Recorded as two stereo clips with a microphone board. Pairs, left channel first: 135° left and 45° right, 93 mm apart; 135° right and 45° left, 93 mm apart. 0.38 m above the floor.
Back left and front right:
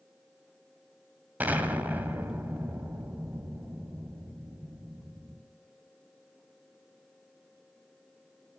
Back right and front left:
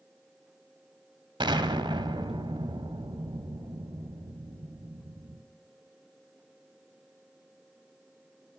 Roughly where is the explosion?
Ahead left.